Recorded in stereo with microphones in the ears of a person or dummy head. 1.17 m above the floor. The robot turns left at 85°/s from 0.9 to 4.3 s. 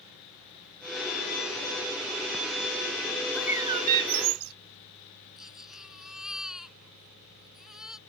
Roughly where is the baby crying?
Centre.